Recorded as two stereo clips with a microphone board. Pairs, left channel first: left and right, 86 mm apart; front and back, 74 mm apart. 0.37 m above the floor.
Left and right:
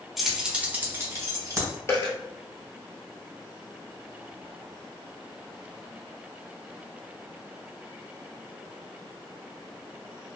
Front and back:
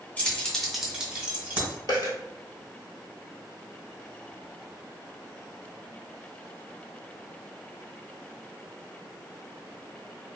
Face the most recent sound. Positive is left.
turn(degrees=30)